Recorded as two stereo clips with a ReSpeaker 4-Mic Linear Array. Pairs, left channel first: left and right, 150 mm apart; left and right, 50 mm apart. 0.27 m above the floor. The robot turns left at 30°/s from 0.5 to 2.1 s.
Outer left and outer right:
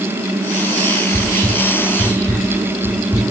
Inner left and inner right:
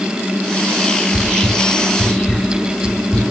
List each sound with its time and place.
1.1 s whispering: 20° left (ahead or behind), 1.2 m